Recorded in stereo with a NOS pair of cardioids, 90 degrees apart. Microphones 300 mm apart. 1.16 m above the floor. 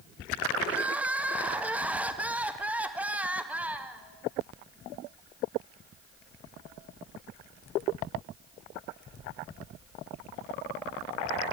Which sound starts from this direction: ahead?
Crying, at 0.7 s.